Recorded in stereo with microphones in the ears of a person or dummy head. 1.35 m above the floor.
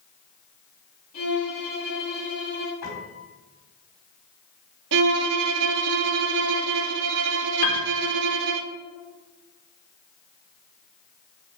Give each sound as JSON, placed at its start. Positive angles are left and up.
{"t": 1.1, "sound": "a violin", "side_deg": 45, "distance_m": 4.0}
{"t": 2.8, "sound": "a piano", "side_deg": 70, "distance_m": 4.5}
{"t": 4.9, "sound": "a violin", "side_deg": -70, "distance_m": 0.9}
{"t": 7.6, "sound": "a piano", "side_deg": 50, "distance_m": 1.6}